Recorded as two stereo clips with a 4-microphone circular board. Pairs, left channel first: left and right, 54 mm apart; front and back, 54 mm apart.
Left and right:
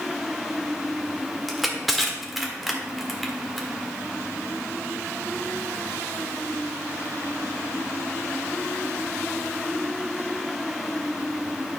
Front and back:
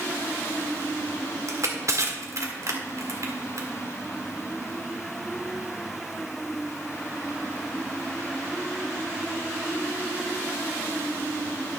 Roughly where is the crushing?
Behind.